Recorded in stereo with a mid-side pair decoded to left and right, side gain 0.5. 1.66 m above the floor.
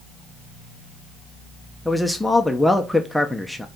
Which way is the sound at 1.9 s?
5° left.